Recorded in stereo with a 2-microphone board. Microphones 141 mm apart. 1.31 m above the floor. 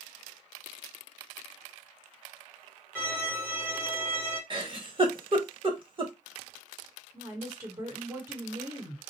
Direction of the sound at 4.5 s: 35° right (ahead or behind).